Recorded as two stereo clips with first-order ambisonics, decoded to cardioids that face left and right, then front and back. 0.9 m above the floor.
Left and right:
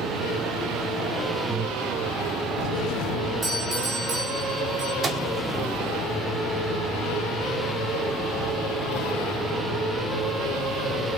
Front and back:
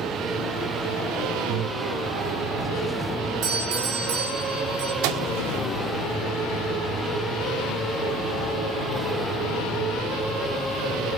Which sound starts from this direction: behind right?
A doorbell, at 3.4 s.